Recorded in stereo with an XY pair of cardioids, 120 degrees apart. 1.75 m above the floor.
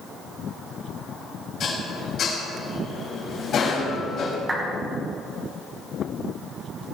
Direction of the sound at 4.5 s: 20° right.